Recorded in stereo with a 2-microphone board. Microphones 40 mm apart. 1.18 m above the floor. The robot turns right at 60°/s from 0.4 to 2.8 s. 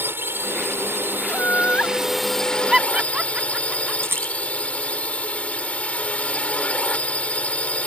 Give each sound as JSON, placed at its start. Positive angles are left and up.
{"t": 0.0, "sound": "a drone", "azimuth_deg": -110}
{"t": 1.3, "sound": "laughter", "side_deg": 65}
{"t": 4.0, "sound": "a rattle", "side_deg": -85}